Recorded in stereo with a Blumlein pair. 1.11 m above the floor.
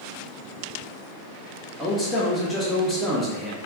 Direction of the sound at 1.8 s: 5° left.